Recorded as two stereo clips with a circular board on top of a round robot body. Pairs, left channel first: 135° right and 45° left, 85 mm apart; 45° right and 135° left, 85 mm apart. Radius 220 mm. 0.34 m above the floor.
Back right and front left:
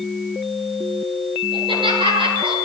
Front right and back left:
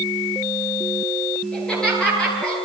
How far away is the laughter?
About 10 m.